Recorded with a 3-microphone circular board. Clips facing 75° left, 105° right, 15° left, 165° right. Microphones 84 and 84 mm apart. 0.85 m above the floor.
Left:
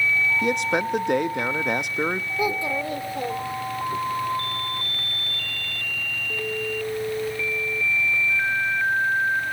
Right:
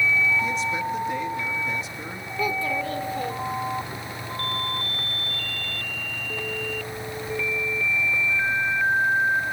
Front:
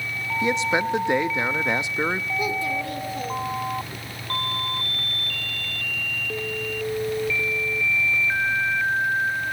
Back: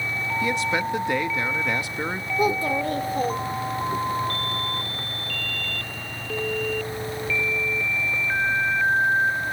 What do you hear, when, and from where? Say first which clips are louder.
0.4 s a man speaking: left 3 dB, front 3 dB; 85° left, 0.8 m
2.4 s a child speaking: right 1 dB, back 4 dB; 145° left, 1.4 m